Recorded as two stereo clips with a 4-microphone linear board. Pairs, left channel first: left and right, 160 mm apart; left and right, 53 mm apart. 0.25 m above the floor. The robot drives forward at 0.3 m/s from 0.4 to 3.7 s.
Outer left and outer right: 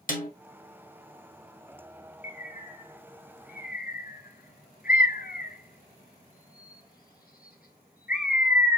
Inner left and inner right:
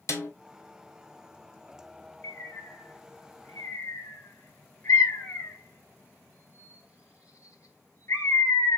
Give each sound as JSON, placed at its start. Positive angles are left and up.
{"t": 0.1, "sound": "a snare drum", "side_deg": 60, "distance_m": 1.7}
{"t": 2.2, "sound": "a bird", "side_deg": 55, "distance_m": 1.4}